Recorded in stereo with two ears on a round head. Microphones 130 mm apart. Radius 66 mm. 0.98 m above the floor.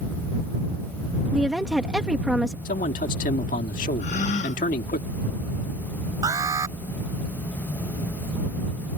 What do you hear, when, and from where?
1.3 s a woman speaking: 5° right (ahead or behind)
2.6 s a man speaking: 55° left (ahead or behind)
4.0 s a gasp: 50° left (ahead or behind)
6.2 s an alarm: 25° right (ahead or behind)